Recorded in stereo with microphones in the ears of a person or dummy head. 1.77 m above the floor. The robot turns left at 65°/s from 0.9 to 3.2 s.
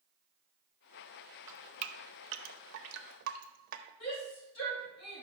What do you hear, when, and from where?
1.5 s dripping: 15° right (ahead or behind), 0.5 m; by 3.9 s 55° right (ahead or behind), 0.5 m
4.0 s a shout: 75° left (ahead or behind), 3 m